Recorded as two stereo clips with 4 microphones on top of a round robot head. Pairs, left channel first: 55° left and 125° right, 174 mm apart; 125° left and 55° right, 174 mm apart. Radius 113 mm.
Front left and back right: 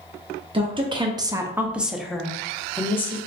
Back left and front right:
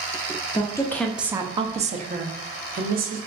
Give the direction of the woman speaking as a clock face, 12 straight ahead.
6 o'clock.